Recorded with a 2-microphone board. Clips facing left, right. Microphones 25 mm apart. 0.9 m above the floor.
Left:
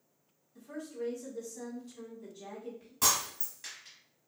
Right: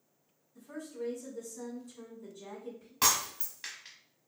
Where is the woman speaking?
40° left (ahead or behind), 1.7 m.